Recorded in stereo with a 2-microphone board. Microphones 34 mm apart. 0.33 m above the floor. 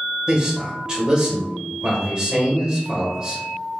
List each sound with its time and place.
0.3 s a man speaking: 25° right (ahead or behind), 1.2 m